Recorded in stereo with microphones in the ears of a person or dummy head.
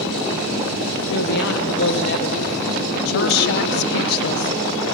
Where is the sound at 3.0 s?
55° left (ahead or behind), 0.6 m.